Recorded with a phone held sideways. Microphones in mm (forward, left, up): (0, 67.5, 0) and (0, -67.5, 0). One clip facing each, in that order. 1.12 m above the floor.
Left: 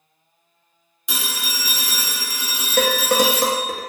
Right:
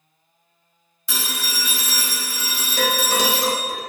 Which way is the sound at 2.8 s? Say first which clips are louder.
Left 4 dB; 55° left (ahead or behind).